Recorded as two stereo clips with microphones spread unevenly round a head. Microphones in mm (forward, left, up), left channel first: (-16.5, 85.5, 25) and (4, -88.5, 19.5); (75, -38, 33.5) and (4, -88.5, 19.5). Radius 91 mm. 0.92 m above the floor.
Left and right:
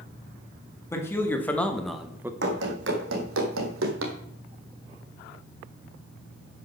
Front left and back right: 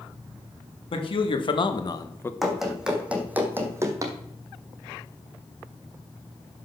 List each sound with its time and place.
0.9 s a man speaking: 20° left, 2 m; by 2.3 s 30° right, 0.9 m
2.4 s running footsteps: 55° right, 3 m; by 4.2 s 95° right, 2.5 m